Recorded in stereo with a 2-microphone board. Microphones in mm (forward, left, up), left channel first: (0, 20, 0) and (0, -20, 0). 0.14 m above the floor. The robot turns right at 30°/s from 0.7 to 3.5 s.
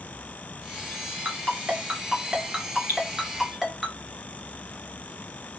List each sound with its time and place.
1.2 s a ringtone: 50° right (ahead or behind), 1.7 m; by 3.9 s 5° right (ahead or behind), 1.7 m
2.9 s dripping: 50° right (ahead or behind), 2.5 m